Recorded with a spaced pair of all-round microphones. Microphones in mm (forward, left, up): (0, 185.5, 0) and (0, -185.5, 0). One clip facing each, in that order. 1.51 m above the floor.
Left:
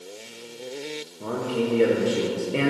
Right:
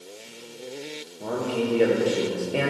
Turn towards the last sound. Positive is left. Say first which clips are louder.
# even
turn(degrees=10)  # may be behind; listen again after turning